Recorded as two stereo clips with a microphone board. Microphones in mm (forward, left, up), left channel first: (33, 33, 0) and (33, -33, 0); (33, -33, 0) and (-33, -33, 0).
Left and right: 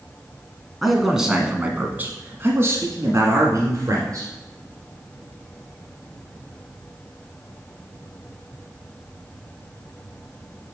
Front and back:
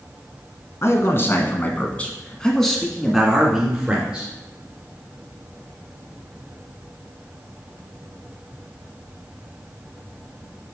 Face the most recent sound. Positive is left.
turn(degrees=-110)